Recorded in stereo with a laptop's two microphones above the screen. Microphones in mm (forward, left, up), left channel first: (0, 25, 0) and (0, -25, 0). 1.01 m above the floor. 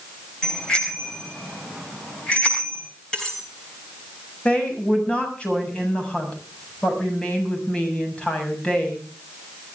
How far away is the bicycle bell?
About 3.5 m.